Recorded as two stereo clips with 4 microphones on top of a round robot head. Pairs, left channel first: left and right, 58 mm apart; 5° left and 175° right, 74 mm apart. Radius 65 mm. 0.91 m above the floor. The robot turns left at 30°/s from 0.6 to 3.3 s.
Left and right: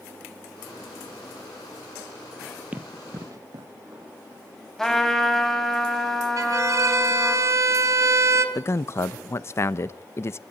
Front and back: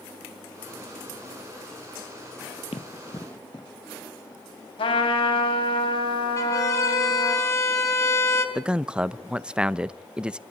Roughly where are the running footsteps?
Ahead right.